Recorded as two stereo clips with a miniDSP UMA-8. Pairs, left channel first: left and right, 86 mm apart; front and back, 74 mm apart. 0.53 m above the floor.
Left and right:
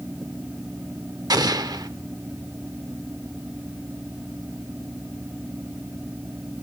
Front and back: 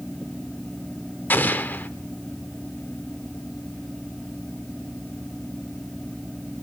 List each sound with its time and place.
1.3 s an explosion: 60° right, 0.7 m